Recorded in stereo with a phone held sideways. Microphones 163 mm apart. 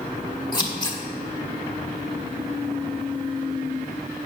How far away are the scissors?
About 1.3 m.